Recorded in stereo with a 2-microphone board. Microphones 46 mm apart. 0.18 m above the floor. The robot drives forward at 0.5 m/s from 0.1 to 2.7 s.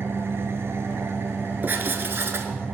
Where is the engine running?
65° right (ahead or behind), 0.8 m; by 2.8 s 35° right (ahead or behind), 1.3 m.